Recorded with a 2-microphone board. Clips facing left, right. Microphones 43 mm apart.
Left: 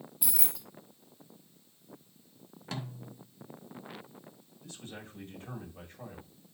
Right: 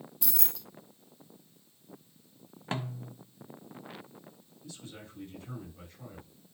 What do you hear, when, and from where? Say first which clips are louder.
0.2 s keys jangling: even; 10° left (ahead or behind), 0.7 m
2.7 s a snare drum: right 5 dB; 40° right (ahead or behind), 1.1 m
4.6 s a man speaking: left 1 dB; 45° left (ahead or behind), 6 m